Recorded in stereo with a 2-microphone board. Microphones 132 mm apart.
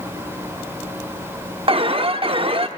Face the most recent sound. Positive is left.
turn(degrees=-45)  # may be behind; listen again after turning